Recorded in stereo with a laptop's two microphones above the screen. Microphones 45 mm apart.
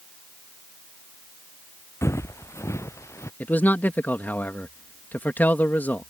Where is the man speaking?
40° left (ahead or behind).